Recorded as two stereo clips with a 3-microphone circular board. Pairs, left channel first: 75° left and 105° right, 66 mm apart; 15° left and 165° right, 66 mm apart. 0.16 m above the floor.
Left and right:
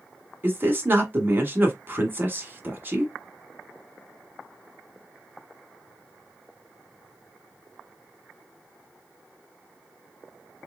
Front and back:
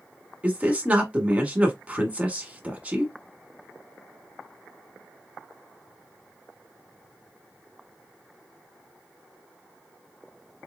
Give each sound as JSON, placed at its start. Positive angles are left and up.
{"t": 0.4, "sound": "a man speaking", "azimuth_deg": -120, "distance_m": 1.2}